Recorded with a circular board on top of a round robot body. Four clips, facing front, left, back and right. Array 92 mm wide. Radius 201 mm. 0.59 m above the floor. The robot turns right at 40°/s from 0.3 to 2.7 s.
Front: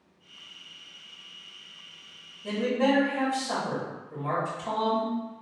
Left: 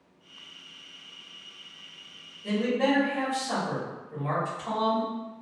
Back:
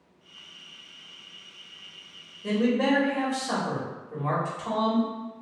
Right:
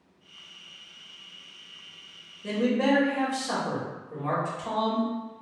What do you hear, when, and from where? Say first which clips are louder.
2.4 s a man speaking: right 1 dB, back 2 dB; 145° right, 2.0 m; by 5.1 s 135° right, 2.0 m